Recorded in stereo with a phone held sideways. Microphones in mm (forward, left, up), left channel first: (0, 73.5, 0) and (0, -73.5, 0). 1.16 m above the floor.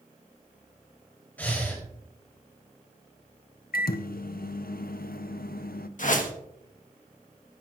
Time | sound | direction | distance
1.4 | breathing | 10° left (ahead or behind) | 3.5 m
3.7 | a microwave | 85° left | 0.6 m
6.0 | a whoosh | 60° left (ahead or behind) | 1.3 m